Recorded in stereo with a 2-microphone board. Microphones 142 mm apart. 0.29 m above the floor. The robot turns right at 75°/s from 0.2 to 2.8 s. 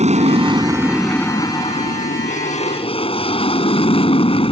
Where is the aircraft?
65° right; by 4.5 s 130° left.